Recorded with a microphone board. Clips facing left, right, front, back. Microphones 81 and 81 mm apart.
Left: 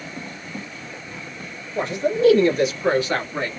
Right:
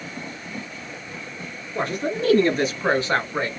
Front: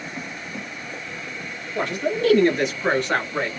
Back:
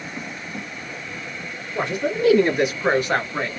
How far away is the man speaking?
About 1.9 m.